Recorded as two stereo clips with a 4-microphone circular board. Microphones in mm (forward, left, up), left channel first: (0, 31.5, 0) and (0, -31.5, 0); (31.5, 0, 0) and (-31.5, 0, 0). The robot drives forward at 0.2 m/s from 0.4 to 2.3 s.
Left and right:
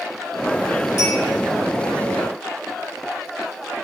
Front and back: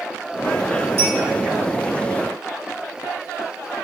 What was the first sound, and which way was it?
A clink, 50° left.